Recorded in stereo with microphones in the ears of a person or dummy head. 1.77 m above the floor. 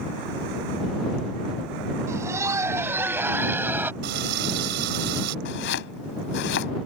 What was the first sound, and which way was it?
Laughter, 15° right (ahead or behind).